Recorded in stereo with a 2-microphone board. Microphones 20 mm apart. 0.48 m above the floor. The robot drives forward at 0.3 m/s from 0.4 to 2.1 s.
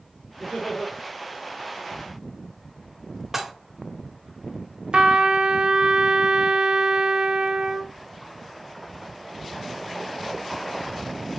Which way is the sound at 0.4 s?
35° left (ahead or behind).